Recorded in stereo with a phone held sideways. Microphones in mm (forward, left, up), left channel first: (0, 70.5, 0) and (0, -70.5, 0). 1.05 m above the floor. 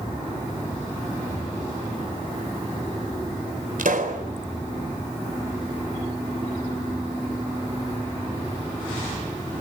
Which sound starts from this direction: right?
A pop, at 3.8 s.